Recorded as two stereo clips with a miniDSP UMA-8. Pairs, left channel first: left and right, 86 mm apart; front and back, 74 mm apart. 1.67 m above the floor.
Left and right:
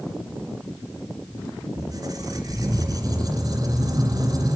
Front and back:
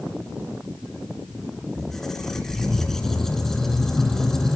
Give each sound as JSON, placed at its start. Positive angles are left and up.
{"t": 1.8, "sound": "a squeak", "azimuth_deg": -85, "distance_m": 2.0}